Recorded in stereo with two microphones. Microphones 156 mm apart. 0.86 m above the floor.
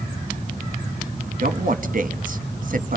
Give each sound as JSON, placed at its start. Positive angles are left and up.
{"t": 1.4, "sound": "a man speaking", "side_deg": -60, "distance_m": 0.9}